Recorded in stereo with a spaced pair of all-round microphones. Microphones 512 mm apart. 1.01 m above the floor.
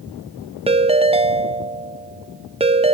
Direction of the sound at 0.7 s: 10° right (ahead or behind).